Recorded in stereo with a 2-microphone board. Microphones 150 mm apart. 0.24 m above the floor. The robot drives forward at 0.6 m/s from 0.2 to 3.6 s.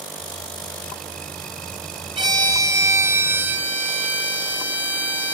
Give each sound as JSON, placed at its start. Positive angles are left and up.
{"t": 2.2, "sound": "a violin", "side_deg": -30, "distance_m": 0.5}